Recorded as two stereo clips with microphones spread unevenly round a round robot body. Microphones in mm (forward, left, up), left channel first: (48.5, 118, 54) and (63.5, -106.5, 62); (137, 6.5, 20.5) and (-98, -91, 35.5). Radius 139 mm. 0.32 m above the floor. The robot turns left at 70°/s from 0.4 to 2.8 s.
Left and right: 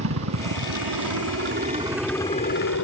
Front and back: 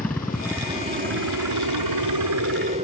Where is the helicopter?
60° right; by 2.9 s 130° left.